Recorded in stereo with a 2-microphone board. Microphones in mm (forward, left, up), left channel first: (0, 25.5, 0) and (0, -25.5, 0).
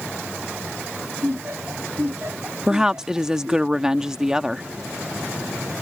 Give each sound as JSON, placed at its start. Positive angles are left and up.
{"t": 1.2, "sound": "laughter", "side_deg": -50}
{"t": 2.7, "sound": "a woman speaking", "side_deg": -10}